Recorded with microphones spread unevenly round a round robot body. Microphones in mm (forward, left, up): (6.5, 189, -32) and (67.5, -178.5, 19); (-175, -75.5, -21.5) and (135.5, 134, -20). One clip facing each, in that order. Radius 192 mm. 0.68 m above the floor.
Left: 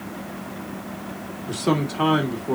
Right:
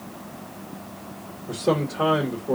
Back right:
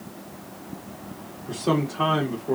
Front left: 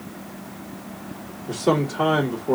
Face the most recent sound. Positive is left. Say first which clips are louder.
# left 1 dB, front left 3 dB
turn(degrees=105)